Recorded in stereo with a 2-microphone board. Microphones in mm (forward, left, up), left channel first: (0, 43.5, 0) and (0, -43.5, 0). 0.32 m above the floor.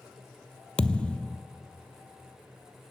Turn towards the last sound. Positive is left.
turn(degrees=15)  # may be behind; listen again after turning